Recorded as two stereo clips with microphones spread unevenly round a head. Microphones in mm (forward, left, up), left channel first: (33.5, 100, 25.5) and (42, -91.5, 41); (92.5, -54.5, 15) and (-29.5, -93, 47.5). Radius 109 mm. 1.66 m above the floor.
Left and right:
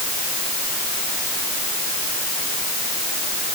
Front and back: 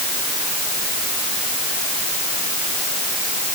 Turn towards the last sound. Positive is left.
No sound to turn to.